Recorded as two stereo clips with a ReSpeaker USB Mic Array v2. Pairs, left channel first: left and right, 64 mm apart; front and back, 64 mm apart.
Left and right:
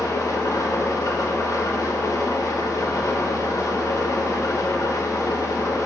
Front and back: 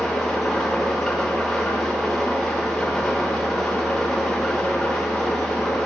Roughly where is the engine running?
Left.